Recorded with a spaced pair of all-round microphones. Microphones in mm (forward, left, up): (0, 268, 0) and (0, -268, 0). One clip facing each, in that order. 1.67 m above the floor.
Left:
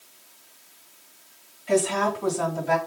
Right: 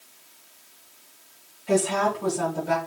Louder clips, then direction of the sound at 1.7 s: Even; 65° right (ahead or behind).